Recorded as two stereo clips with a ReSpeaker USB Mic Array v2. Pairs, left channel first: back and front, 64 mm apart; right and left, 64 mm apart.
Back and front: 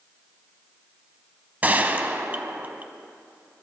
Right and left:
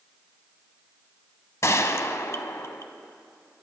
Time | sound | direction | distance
1.6 | a gunshot | 60° right | 0.8 m